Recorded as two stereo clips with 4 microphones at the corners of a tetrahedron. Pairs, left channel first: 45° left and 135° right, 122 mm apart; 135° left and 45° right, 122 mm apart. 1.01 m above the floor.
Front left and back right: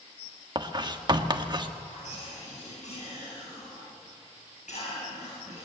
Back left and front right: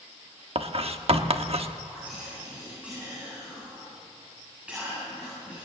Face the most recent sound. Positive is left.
turn(degrees=35)